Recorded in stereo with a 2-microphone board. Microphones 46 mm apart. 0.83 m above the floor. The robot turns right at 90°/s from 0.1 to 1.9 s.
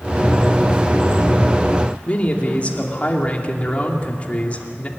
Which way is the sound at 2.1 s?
30° left (ahead or behind).